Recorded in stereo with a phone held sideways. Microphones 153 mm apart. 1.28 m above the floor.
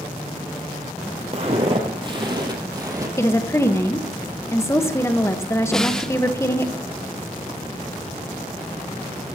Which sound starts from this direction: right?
Footsteps, at 1.3 s.